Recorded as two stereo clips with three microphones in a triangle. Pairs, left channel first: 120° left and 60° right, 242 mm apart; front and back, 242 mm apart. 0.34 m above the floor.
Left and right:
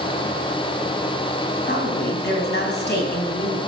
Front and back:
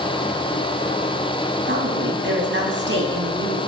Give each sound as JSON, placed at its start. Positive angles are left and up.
{"t": 1.6, "sound": "a woman speaking", "azimuth_deg": 155, "distance_m": 3.0}